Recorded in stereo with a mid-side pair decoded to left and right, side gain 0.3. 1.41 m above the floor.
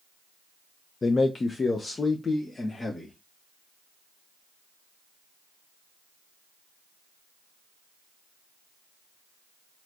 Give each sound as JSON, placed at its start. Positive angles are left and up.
{"t": 1.0, "sound": "a man speaking", "azimuth_deg": 45, "distance_m": 0.5}